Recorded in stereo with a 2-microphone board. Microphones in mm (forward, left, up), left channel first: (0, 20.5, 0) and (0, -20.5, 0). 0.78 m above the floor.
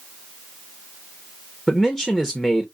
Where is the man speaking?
5° left (ahead or behind), 0.7 m.